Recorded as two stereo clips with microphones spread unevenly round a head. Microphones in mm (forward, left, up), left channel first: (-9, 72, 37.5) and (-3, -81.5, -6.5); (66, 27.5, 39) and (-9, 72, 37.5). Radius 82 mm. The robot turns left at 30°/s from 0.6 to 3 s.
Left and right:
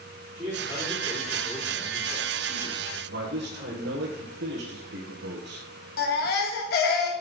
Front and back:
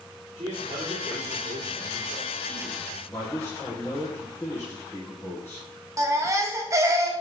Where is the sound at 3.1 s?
105° right, 1.7 m.